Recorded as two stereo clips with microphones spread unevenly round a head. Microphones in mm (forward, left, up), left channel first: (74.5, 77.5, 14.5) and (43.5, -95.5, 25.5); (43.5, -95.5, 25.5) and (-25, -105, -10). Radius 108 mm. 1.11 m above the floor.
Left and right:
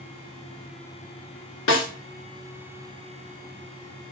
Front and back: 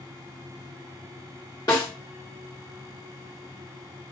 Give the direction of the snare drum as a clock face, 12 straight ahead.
10 o'clock.